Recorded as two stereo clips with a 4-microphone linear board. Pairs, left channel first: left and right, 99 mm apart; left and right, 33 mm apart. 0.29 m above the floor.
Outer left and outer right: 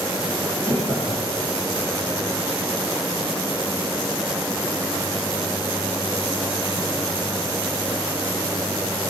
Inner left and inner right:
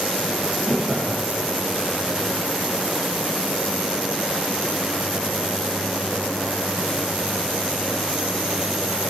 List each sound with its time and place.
0.3 s laughter: 25° right (ahead or behind), 8 m